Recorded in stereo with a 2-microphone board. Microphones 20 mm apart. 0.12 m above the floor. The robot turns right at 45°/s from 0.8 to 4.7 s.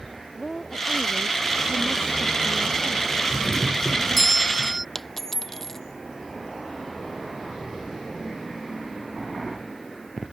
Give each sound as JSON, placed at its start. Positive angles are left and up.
{"t": 0.3, "sound": "a woman speaking", "azimuth_deg": 155}
{"t": 3.3, "sound": "a doorbell", "azimuth_deg": 125}
{"t": 5.0, "sound": "a dropped coin", "side_deg": 15}